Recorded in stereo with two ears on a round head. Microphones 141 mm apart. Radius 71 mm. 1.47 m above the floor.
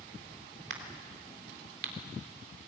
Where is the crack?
75° right (ahead or behind), 3 m.